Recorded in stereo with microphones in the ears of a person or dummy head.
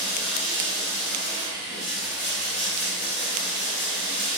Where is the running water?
Centre (ahead or behind), 0.8 m.